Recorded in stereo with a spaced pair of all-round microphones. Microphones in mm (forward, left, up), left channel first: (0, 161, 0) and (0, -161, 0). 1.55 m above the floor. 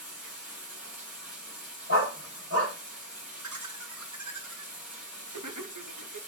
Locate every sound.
0.0 s running water: 5° right (ahead or behind), 1.6 m
1.9 s a dog barking: 40° right (ahead or behind), 1.9 m
3.4 s laughter: 65° right (ahead or behind), 0.8 m